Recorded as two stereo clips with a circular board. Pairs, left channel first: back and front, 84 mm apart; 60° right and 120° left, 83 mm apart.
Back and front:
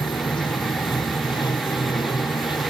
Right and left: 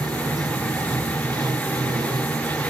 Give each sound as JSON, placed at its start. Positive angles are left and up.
{"t": 0.0, "sound": "running water", "azimuth_deg": 155}